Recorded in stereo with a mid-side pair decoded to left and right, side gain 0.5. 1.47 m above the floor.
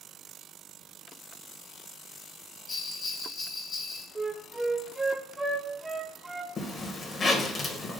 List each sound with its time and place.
2.7 s a bell: 50° left, 1.5 m
4.2 s a flute: 10° right, 0.6 m
6.6 s a zipper: 35° left, 0.9 m